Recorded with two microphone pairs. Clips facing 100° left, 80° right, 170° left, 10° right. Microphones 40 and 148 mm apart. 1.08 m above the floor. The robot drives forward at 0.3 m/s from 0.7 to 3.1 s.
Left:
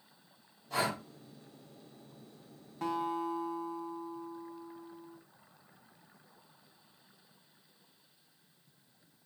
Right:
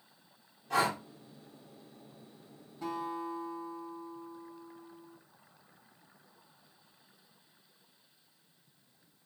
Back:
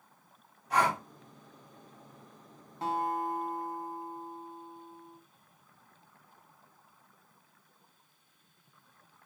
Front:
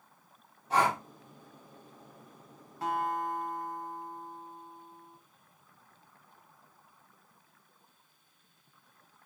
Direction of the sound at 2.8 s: 105° left.